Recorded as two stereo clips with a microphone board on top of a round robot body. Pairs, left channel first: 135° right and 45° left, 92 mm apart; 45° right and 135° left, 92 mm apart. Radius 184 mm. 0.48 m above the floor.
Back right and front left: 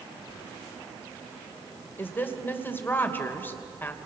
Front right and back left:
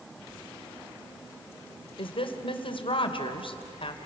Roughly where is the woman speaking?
Ahead right.